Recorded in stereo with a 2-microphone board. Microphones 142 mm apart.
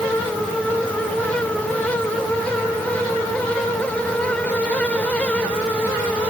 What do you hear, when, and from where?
Only background noise.